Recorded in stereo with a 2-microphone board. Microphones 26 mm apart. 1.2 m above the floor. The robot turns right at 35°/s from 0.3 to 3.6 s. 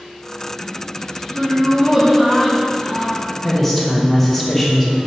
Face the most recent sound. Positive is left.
turn(degrees=5)  # may be behind; listen again after turning